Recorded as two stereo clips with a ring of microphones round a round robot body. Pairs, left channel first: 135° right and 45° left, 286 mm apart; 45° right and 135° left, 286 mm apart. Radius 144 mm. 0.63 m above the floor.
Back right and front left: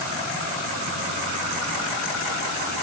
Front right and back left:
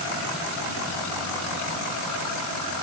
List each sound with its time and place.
Only background noise.